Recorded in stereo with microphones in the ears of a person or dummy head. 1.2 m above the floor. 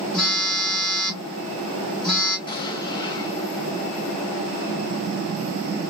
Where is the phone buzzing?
10° left (ahead or behind), 1.1 m.